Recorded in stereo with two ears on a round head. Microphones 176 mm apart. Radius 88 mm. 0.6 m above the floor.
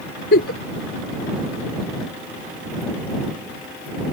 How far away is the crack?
I don't hear a crack.